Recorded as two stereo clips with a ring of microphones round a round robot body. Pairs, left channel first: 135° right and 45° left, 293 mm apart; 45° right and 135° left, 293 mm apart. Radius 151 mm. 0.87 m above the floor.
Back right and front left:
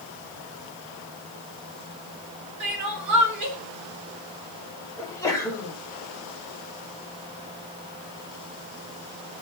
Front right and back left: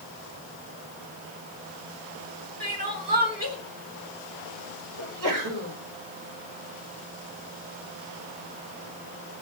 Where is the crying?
75° left, 4 m.